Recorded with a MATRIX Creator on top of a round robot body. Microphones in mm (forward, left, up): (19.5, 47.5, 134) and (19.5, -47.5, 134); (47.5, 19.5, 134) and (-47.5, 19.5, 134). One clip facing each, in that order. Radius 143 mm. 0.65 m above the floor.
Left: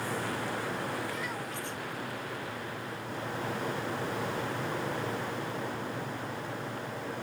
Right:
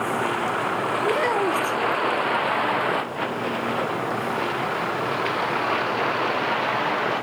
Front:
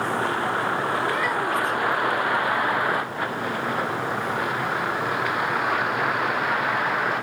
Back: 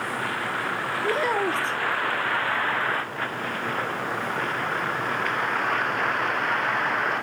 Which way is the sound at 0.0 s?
65° right.